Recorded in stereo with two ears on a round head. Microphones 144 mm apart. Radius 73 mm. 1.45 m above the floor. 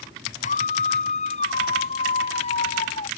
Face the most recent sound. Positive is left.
turn(degrees=40)  # may be behind; listen again after turning